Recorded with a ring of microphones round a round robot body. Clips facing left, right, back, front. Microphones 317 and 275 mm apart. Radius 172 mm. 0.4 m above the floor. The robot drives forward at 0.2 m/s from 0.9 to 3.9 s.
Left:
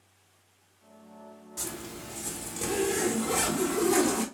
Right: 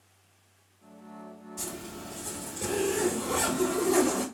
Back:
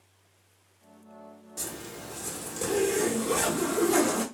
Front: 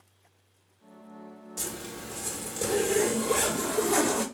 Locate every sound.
1.6 s a zipper: 85° left, 1.7 m; by 4.2 s 110° left, 1.7 m